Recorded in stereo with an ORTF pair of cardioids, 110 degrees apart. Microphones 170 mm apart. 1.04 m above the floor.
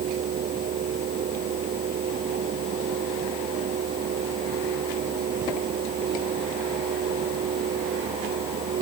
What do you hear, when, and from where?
0.0 s a fan: 55° right